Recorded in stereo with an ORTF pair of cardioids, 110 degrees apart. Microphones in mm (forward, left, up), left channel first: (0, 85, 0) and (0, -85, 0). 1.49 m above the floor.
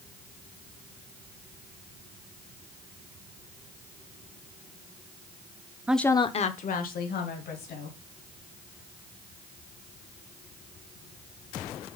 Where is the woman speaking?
10° right, 0.7 m; by 8.0 s 65° left, 3 m.